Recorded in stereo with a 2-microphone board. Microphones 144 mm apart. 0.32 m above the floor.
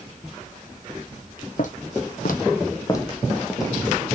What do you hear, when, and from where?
1.6 s footsteps: 60° left (ahead or behind), 1.2 m; by 3.7 s 5° right (ahead or behind), 1.5 m